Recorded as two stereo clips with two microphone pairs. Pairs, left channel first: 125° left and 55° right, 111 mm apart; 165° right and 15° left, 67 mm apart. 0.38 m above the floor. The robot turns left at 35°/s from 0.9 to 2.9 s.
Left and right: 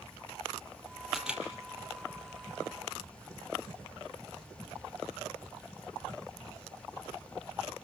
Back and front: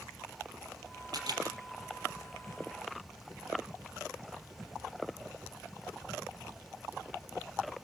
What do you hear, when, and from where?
1.1 s a camera shutter: 30° left, 4.5 m; by 1.4 s 20° left, 4.5 m